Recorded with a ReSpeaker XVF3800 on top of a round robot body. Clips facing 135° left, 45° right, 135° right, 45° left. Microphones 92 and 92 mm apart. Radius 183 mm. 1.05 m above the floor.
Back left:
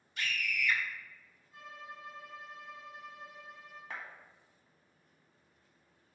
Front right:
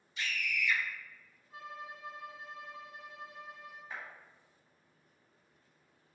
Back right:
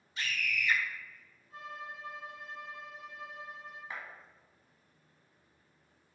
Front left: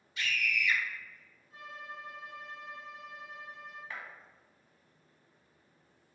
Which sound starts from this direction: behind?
A scream, at 0.2 s.